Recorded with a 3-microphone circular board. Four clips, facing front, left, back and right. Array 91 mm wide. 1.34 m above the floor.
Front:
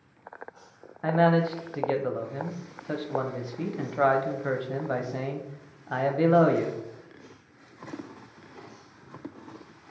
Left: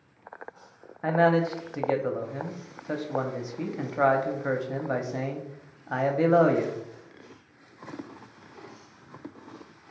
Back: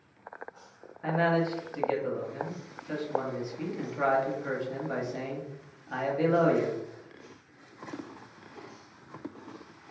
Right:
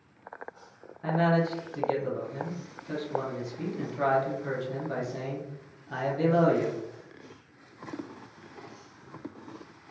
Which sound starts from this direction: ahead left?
A man speaking, at 1.0 s.